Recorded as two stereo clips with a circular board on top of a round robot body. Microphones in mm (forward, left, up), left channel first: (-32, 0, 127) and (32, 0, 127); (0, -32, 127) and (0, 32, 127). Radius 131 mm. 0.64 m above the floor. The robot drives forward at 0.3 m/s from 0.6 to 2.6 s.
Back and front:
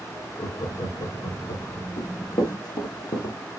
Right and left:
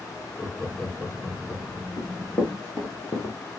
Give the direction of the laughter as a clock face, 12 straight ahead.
6 o'clock.